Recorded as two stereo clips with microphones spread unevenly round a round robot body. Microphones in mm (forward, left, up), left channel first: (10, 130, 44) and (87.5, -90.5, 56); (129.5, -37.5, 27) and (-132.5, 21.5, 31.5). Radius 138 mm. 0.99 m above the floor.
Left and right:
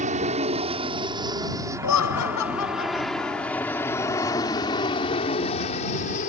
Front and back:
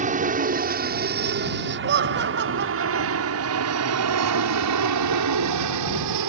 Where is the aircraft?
135° right; by 6.3 s 165° left.